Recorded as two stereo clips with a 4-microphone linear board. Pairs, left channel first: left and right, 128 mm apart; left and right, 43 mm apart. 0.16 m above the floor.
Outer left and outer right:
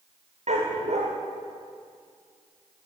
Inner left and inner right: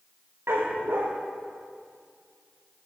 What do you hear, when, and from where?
0.5 s a dog barking: 60° right (ahead or behind), 8.5 m